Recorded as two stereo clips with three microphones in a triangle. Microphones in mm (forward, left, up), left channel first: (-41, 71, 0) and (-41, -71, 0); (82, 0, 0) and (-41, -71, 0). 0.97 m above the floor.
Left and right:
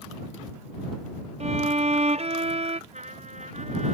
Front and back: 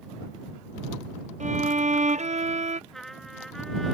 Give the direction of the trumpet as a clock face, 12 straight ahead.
2 o'clock.